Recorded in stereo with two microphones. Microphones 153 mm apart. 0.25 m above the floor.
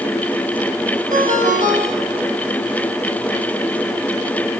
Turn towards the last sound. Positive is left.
turn(degrees=-60)  # may be behind; listen again after turning